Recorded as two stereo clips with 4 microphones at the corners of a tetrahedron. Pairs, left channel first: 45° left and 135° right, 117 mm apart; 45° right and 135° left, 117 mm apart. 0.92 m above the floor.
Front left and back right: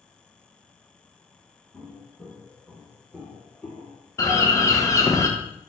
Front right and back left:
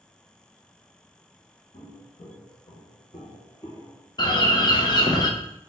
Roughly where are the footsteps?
Ahead right.